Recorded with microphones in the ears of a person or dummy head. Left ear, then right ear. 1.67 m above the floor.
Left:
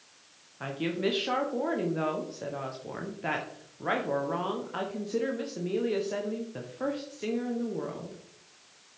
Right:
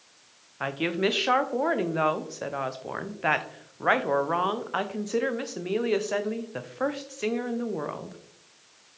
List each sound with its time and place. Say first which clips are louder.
0.6 s a woman speaking: right 4 dB; 25° right (ahead or behind), 0.9 m